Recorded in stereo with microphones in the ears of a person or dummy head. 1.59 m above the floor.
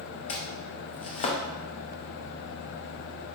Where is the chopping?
35° left (ahead or behind), 0.6 m.